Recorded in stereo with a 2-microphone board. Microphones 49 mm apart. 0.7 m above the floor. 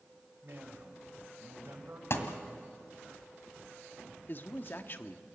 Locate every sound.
0.4 s a man speaking: 55° right (ahead or behind), 3.5 m
2.1 s a thud: 60° left (ahead or behind), 1.9 m
4.3 s a man speaking: 45° left (ahead or behind), 1.0 m